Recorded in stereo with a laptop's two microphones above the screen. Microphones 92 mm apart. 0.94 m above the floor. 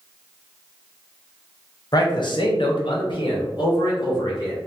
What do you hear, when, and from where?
1.9 s a man speaking: 45° left (ahead or behind), 0.7 m; by 4.6 s 50° left (ahead or behind), 1.7 m